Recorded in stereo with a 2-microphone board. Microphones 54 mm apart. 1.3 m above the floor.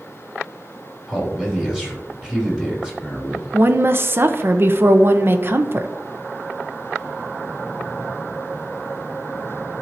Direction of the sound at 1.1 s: 10° right (ahead or behind).